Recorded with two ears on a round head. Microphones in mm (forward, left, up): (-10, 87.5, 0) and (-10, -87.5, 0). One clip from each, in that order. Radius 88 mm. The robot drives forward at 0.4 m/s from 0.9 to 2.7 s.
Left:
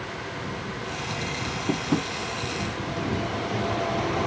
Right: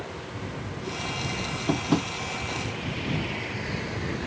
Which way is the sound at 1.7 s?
20° right (ahead or behind).